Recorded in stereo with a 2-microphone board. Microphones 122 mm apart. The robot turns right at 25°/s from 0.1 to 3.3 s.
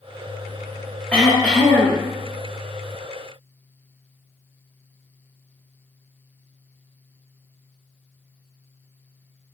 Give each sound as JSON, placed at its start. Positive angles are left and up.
{"t": 1.1, "sound": "throat clearing", "side_deg": 10, "distance_m": 0.7}